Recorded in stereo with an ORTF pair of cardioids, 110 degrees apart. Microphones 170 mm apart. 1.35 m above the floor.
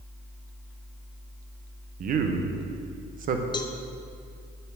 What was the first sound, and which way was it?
A man speaking, 55° right.